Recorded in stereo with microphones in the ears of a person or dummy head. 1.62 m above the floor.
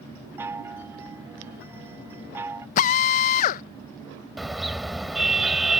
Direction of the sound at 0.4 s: 15° right (ahead or behind).